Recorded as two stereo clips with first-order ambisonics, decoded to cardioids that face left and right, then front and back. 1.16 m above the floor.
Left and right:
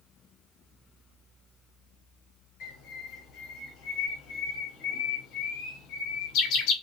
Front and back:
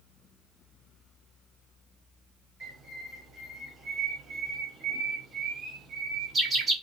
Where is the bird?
110° left, 1.6 m.